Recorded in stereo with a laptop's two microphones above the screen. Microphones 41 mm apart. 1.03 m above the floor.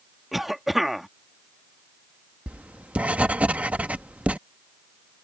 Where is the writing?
35° right (ahead or behind).